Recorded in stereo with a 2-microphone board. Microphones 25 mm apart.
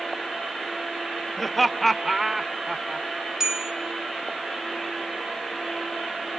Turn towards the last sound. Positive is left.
turn(degrees=-25)  # may be behind; listen again after turning